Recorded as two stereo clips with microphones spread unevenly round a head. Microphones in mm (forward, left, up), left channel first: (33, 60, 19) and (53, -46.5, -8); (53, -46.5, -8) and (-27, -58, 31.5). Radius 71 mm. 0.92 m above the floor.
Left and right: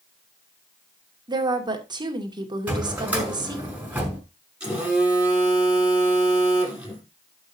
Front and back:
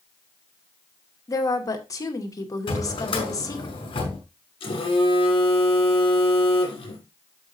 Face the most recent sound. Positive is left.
turn(degrees=5)